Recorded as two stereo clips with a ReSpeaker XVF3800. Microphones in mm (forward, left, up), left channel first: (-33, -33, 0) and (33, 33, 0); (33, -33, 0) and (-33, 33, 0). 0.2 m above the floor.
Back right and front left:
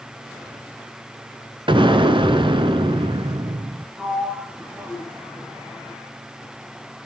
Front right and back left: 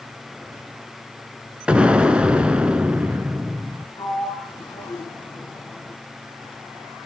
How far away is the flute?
I don't hear a flute.